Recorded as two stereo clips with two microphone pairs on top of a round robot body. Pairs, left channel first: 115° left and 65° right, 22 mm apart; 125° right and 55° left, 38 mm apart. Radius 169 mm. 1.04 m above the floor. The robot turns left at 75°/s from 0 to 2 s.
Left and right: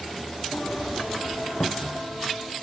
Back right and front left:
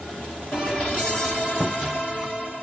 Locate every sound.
1.6 s a cupboard door: 140° left, 0.9 m; by 2.1 s 110° left, 0.9 m